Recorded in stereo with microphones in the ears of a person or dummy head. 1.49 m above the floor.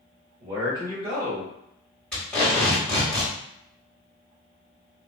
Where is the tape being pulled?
5° left (ahead or behind), 1.8 m.